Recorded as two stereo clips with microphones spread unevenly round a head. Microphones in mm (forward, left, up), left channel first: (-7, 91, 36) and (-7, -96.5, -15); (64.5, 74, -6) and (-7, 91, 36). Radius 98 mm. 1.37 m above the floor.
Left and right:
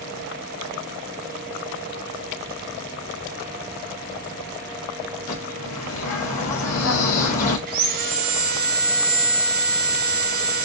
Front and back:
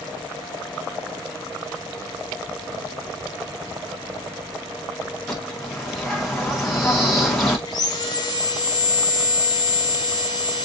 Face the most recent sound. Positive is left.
turn(degrees=-50)